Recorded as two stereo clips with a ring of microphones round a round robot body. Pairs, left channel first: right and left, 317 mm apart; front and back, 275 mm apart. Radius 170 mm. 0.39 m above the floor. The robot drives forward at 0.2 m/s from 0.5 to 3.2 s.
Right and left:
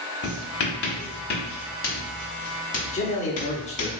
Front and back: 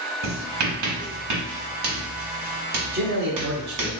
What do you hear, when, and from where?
0.2 s writing: 145° right, 1.1 m; by 3.9 s 155° right, 1.6 m
2.9 s a man speaking: 145° right, 1.0 m; by 3.9 s 150° right, 1.0 m